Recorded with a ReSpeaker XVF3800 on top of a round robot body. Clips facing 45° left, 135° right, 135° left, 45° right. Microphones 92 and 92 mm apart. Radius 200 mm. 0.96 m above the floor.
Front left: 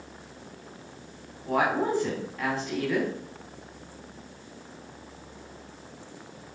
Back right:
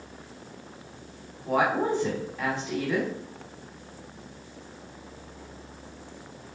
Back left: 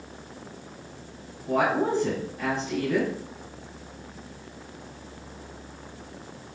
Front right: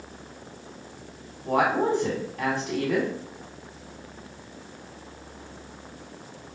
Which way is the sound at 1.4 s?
65° right.